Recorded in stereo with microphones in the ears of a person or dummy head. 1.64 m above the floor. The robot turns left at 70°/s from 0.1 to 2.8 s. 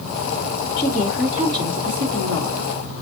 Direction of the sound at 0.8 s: 25° left.